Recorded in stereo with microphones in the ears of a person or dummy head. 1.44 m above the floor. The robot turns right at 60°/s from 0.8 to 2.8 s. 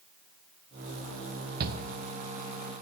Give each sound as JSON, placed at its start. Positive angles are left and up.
{"t": 1.6, "sound": "a shout", "side_deg": -55, "distance_m": 0.8}